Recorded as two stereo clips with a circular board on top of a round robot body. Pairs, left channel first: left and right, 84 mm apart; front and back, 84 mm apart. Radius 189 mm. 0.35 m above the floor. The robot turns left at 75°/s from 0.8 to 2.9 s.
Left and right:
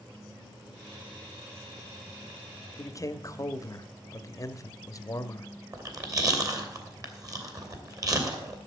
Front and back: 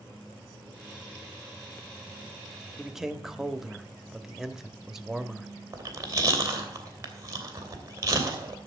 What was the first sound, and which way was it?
A man speaking, 105° left.